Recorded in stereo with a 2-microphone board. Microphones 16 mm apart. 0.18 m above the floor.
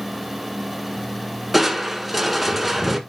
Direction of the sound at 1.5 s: 5° right (ahead or behind).